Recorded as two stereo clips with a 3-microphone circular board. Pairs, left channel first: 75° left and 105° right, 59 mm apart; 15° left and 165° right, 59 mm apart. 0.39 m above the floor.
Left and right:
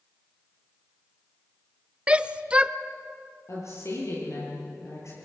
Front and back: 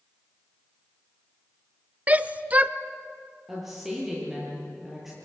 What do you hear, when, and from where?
2.1 s a shout: 150° right, 0.8 m
3.5 s a woman speaking: 110° left, 9.5 m